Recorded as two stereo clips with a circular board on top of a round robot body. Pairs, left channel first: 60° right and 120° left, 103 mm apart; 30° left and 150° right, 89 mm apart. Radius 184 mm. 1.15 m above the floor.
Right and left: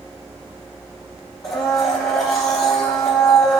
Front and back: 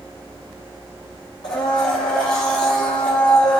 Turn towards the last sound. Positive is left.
turn(degrees=5)